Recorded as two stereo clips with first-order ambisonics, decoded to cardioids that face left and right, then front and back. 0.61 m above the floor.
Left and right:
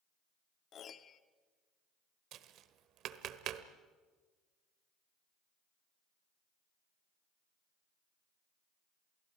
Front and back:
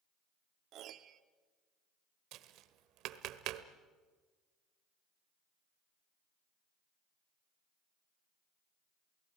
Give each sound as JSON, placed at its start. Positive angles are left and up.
{"t": 0.7, "sound": "a piano", "azimuth_deg": 145, "distance_m": 0.8}
{"t": 2.3, "sound": "tapping", "azimuth_deg": -140, "distance_m": 1.1}